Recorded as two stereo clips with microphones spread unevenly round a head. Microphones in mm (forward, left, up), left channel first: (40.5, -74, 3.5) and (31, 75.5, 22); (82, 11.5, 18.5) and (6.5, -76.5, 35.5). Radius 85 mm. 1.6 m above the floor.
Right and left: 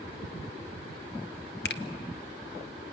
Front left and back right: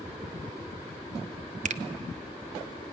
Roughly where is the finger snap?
Behind right.